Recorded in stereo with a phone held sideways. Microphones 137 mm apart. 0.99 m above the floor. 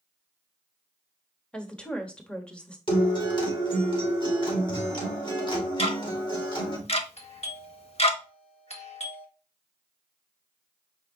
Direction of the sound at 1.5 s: 5° left (ahead or behind).